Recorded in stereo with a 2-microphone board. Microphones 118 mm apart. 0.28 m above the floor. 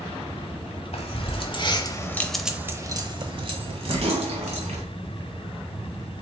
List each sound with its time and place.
0.9 s keys jangling: 60° left (ahead or behind), 1.1 m; by 4.8 s 65° right (ahead or behind), 1.7 m